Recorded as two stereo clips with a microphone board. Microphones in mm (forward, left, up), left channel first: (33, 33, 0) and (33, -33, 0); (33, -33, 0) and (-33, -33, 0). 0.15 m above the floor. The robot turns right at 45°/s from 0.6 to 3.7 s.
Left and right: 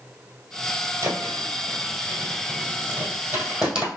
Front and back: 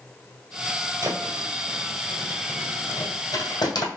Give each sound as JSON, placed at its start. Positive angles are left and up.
{"t": 1.0, "sound": "a thud", "azimuth_deg": -135, "distance_m": 1.8}